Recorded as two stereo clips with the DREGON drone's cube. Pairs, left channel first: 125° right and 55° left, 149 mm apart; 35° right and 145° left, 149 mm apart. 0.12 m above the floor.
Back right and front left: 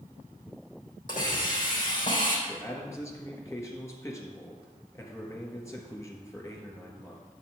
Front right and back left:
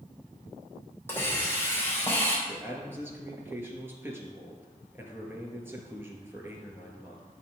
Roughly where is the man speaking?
Behind.